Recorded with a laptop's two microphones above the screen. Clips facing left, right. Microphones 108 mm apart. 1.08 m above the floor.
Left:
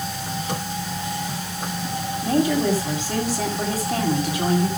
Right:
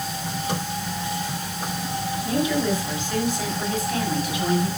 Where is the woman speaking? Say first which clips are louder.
Left 4 dB; 40° left (ahead or behind), 7.5 m.